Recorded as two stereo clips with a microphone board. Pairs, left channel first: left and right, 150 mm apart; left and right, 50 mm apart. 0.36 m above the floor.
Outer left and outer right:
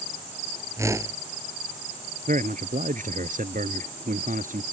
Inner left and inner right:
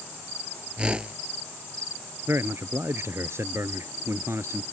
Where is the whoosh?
20° right (ahead or behind).